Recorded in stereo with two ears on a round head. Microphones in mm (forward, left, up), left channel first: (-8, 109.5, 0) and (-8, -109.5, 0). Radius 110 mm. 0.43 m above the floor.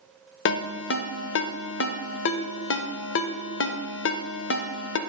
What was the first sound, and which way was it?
A ringtone, 50° left (ahead or behind).